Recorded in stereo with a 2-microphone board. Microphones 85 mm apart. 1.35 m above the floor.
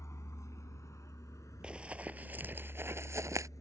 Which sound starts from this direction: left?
A vehicle, at 0.0 s.